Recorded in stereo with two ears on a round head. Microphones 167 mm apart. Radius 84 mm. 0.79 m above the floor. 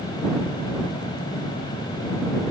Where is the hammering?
I don't hear hammering.